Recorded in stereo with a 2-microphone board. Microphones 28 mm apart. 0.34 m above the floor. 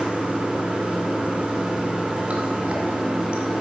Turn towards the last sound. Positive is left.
turn(degrees=-40)  # may be behind; listen again after turning